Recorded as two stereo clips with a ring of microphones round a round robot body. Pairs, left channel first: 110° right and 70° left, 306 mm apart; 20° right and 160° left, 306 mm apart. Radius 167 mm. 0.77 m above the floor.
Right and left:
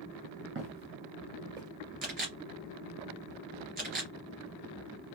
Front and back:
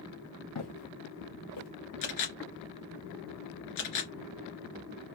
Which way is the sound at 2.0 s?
5° left.